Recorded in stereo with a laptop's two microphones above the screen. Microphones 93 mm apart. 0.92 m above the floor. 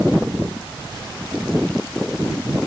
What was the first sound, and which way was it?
Only background noise.